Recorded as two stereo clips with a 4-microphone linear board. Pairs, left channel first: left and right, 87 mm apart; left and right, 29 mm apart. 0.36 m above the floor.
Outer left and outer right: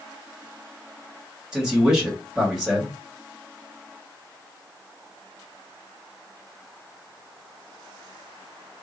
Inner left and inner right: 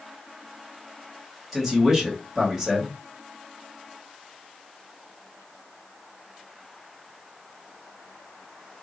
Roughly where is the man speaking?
Centre.